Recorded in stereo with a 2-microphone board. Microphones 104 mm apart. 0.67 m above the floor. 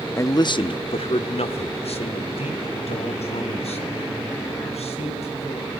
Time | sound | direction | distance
0.2 | a man speaking | 25° left (ahead or behind) | 0.7 m